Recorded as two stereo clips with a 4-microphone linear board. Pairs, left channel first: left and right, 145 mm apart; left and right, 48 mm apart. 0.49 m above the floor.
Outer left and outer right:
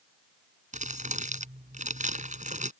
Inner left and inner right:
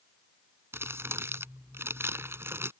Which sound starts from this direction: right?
Crumpling, at 0.7 s.